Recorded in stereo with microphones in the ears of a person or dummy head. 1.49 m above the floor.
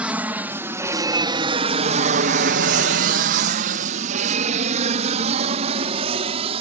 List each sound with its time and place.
0.0 s an aircraft: 5° right (ahead or behind); by 6.6 s 35° right (ahead or behind)